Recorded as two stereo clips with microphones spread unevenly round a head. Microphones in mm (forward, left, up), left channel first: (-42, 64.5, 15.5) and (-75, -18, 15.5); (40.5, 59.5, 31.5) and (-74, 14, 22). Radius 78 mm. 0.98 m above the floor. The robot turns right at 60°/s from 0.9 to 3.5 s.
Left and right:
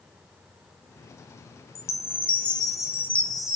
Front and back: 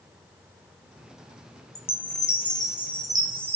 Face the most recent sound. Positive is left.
turn(degrees=165)